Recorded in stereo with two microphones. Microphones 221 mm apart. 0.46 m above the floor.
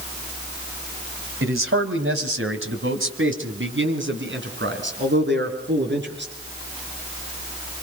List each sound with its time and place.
1.4 s a man speaking: 65° right (ahead or behind), 2.0 m; by 6.3 s 50° right (ahead or behind), 6 m